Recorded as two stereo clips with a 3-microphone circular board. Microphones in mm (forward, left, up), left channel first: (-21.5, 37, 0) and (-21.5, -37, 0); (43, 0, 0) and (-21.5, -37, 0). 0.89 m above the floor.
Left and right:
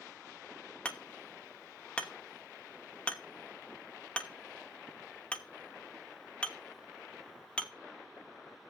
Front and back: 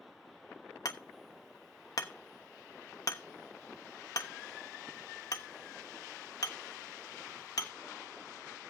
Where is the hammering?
20° left, 1.1 m.